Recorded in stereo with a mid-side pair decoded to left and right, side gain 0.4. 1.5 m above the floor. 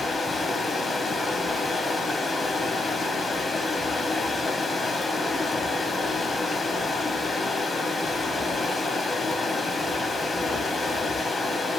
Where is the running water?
30° left, 0.9 m.